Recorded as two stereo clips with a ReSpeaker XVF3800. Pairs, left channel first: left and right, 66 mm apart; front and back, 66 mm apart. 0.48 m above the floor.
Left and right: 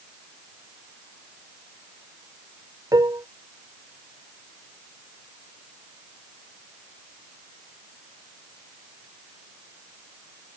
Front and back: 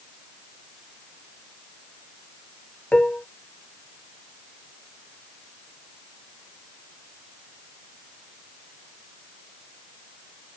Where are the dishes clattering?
75° right.